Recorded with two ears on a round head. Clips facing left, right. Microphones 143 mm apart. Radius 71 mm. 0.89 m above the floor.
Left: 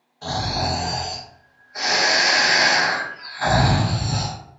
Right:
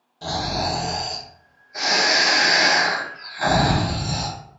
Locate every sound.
0.2 s snoring: 40° right (ahead or behind), 1.1 m